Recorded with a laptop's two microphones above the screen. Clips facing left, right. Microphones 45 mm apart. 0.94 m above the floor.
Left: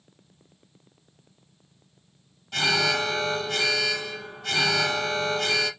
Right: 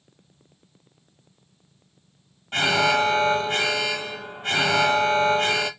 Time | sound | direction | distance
2.5 | an alarm | 35° right (ahead or behind) | 0.8 m